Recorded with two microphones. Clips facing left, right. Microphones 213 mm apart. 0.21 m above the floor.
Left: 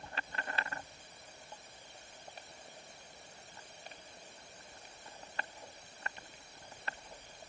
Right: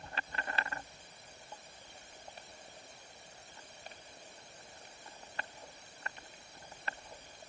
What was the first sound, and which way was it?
Only background noise.